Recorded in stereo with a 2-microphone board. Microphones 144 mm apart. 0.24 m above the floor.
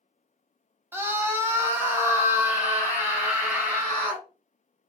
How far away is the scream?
About 1.0 m.